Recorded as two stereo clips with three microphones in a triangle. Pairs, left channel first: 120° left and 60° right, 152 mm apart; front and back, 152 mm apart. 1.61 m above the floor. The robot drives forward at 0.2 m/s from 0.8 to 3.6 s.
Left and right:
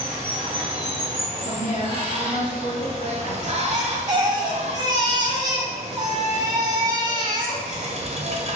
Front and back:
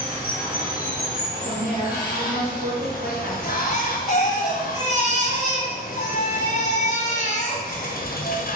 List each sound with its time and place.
0.0 s running water: 5° right, 1.0 m; by 8.6 s 10° right, 0.5 m
1.4 s a woman speaking: 155° left, 1.1 m; by 3.3 s 165° left, 1.4 m
3.4 s a baby crying: 5° right, 0.7 m